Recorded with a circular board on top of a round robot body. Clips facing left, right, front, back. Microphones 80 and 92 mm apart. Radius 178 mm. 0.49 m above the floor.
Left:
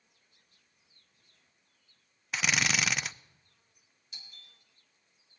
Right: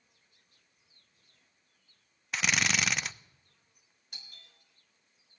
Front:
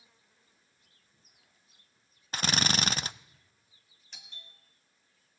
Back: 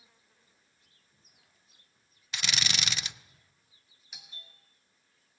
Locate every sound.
2.3 s a drill: straight ahead, 0.6 m
4.1 s a doorbell: 100° right, 3 m